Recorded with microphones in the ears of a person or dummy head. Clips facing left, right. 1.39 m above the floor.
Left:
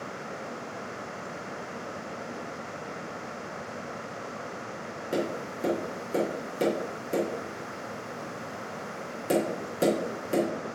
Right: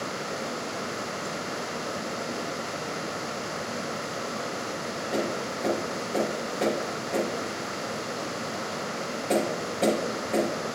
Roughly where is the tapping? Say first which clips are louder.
Even; left.